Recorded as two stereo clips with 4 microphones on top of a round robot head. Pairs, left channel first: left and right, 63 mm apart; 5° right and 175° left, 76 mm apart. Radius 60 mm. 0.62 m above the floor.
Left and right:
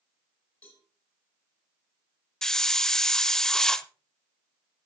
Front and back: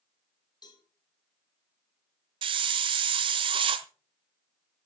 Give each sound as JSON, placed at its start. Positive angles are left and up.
{"t": 0.6, "sound": "a cowbell", "azimuth_deg": 20, "distance_m": 3.5}
{"t": 2.4, "sound": "a hiss", "azimuth_deg": 170, "distance_m": 0.9}